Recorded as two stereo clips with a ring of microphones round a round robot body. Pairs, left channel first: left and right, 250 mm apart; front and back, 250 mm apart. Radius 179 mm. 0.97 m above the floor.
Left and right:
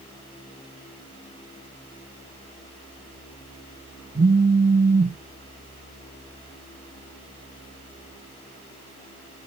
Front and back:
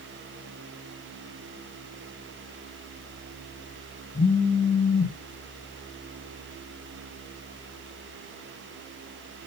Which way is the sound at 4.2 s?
55° right.